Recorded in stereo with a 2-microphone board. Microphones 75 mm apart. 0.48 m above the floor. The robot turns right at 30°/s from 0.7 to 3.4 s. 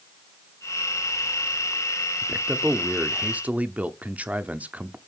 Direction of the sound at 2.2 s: 10° right (ahead or behind).